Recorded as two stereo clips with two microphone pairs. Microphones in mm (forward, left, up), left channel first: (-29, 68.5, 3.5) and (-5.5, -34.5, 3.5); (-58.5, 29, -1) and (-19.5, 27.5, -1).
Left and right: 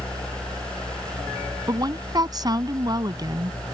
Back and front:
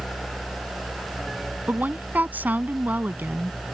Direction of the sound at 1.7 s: 35° right.